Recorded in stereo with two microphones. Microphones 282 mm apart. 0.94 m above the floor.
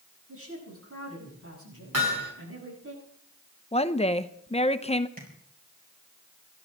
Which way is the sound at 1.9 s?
60° right (ahead or behind).